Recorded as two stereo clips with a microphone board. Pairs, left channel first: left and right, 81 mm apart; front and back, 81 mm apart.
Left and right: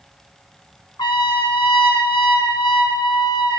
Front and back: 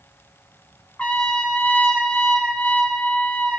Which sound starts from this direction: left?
A trumpet, at 1.0 s.